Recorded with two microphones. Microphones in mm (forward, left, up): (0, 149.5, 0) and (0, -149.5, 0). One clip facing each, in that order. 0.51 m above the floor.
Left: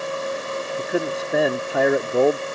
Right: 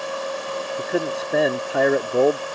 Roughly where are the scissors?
I don't hear scissors.